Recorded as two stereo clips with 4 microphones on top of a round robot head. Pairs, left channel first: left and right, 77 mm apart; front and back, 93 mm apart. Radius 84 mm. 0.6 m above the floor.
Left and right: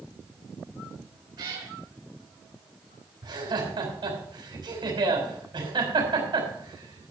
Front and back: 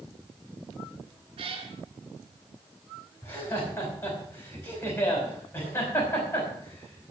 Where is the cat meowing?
135° right, 2.5 m.